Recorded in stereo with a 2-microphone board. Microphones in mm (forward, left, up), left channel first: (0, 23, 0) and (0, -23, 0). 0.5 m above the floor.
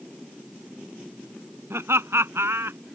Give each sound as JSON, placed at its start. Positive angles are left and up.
{"t": 1.7, "sound": "laughter", "side_deg": -75}